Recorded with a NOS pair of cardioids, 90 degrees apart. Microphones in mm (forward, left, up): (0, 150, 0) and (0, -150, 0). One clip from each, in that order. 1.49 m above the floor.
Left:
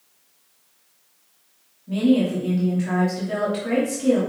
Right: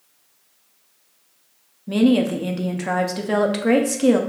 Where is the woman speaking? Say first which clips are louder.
Right 2 dB; 50° right, 0.6 m.